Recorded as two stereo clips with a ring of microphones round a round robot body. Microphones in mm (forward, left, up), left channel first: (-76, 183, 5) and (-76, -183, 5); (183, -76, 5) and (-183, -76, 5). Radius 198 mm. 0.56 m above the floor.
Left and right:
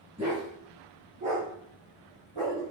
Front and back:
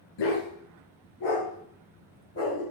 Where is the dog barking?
15° right, 3.5 m; by 2.6 s 55° right, 5 m.